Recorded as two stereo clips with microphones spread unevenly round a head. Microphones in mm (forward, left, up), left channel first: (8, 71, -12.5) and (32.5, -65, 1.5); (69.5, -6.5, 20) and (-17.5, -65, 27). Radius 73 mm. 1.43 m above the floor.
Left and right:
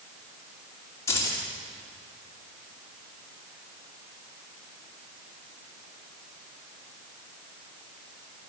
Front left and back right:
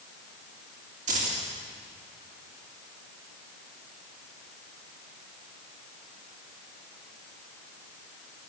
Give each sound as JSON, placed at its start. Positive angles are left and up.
{"t": 1.1, "sound": "keys jangling", "azimuth_deg": 175, "distance_m": 2.5}